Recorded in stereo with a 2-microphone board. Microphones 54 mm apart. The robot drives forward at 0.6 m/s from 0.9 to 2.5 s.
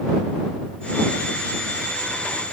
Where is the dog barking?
No dog barking in this recording.